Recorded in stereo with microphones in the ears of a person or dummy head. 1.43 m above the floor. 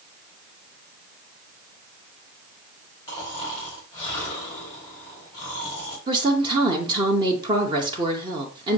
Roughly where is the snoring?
Left.